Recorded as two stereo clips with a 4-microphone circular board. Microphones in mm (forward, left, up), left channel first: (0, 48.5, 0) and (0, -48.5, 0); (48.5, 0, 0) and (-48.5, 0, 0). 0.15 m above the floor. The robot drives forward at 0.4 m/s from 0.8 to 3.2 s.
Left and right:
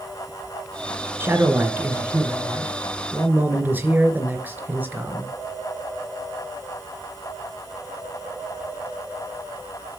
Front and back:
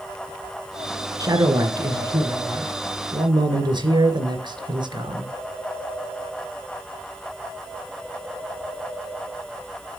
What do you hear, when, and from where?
1.2 s a man speaking: 145° right, 2.5 m; by 5.3 s 155° right, 3 m